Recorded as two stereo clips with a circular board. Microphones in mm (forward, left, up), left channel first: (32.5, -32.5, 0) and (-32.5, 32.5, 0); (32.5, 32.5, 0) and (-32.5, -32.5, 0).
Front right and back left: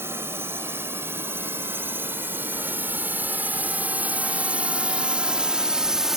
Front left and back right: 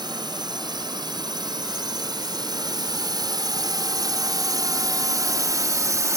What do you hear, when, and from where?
0.0 s a drone: 165° right; by 6.2 s 145° right